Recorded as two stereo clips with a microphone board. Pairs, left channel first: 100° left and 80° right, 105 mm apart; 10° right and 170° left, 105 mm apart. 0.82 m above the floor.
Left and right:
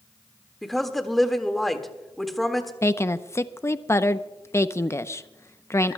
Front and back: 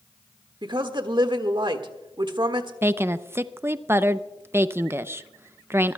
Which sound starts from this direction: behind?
A woman speaking, at 0.6 s.